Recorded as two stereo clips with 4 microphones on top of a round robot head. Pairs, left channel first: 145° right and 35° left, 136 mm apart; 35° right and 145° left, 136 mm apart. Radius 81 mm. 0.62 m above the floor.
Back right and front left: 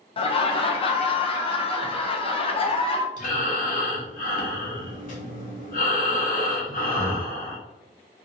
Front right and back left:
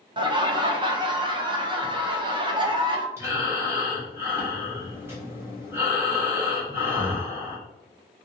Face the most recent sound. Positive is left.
turn(degrees=-145)